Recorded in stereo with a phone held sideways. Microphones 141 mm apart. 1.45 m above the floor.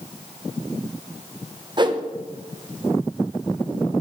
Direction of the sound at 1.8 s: 30° right (ahead or behind).